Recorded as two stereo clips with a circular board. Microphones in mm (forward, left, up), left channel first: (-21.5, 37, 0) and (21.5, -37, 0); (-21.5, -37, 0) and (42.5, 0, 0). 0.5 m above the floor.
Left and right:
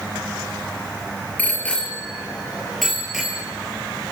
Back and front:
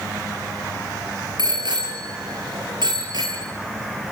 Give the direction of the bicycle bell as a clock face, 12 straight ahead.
10 o'clock.